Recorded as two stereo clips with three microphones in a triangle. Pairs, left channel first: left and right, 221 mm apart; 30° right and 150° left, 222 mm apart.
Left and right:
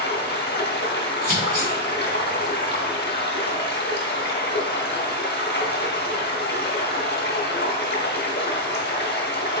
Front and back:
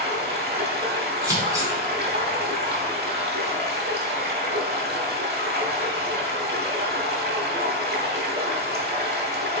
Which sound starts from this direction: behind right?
Scissors, at 1.2 s.